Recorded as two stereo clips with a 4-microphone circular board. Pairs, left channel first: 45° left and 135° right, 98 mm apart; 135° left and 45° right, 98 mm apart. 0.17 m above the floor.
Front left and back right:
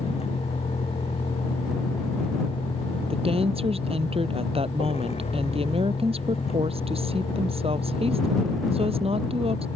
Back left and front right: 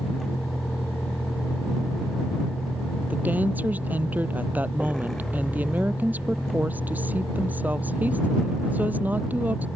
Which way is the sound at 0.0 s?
50° left.